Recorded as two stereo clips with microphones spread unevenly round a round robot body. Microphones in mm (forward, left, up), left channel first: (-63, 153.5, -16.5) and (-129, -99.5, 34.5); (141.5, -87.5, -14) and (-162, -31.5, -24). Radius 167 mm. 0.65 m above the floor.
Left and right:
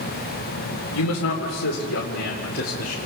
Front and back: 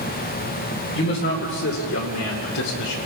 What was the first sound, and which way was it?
A man speaking, 55° left.